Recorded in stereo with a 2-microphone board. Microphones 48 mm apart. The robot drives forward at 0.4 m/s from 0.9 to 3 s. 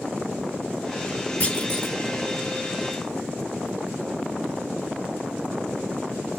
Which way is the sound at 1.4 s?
35° left (ahead or behind).